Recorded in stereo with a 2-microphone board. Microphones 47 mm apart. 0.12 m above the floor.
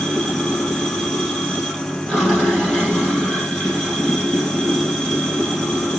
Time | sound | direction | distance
0.0 | running water | 10° left (ahead or behind) | 2.5 m